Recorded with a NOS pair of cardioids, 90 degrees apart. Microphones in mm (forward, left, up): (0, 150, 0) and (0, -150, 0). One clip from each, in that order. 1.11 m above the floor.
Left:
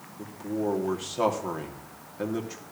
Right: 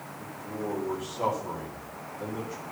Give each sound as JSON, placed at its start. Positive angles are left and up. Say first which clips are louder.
{"t": 0.2, "sound": "a man speaking", "louder": "left 6 dB", "azimuth_deg": 65, "distance_m": 2.5}